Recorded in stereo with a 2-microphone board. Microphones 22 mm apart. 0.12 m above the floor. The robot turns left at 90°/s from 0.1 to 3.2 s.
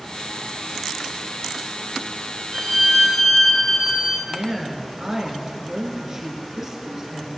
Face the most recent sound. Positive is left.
turn(degrees=-25)  # may be behind; listen again after turning